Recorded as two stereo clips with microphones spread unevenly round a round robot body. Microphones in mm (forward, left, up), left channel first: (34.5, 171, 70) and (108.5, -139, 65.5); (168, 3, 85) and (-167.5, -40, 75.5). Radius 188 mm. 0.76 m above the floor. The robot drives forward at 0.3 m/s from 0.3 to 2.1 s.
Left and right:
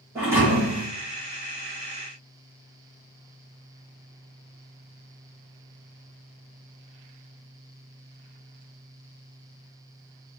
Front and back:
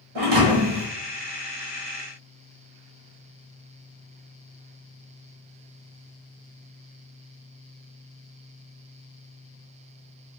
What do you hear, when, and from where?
0.1 s a thud: 160° right, 2 m